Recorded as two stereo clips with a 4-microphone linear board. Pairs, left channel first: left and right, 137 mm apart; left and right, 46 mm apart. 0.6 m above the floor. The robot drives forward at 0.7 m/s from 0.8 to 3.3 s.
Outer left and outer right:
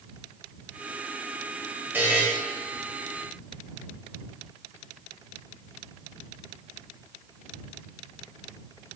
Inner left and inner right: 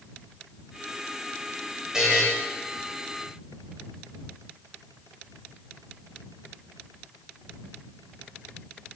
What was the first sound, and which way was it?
A buzzer, 15° right (ahead or behind).